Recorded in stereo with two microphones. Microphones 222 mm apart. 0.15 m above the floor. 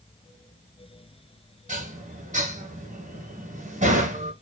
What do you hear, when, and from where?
1.7 s dishes clattering: 35° right (ahead or behind), 1.5 m